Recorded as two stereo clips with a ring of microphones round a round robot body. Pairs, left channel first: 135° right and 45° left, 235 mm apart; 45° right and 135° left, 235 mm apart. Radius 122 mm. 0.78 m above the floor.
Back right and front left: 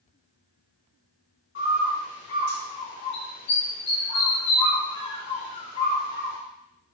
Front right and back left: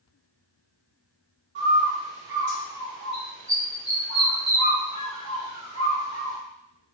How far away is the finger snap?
No finger snap in this recording.